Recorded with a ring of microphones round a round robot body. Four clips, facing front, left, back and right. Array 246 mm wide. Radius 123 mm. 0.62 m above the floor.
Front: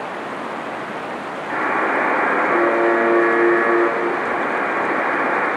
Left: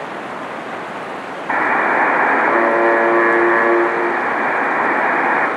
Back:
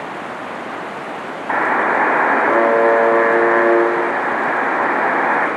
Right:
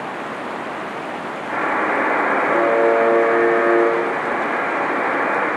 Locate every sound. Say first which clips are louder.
1.5 s a buzzer: left 4 dB, back 4 dB; 140° left, 2 m